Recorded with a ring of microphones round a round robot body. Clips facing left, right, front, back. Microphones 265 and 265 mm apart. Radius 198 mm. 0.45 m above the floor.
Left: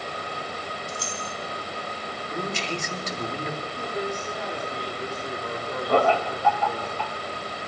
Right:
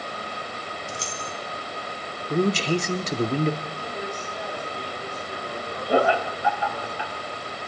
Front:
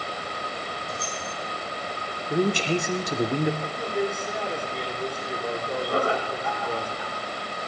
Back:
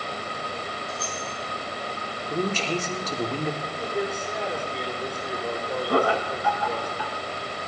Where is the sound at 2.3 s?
70° right, 1.1 m.